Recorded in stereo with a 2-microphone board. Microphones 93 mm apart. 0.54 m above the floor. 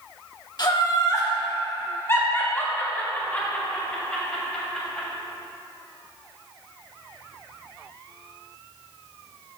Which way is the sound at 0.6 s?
50° left (ahead or behind).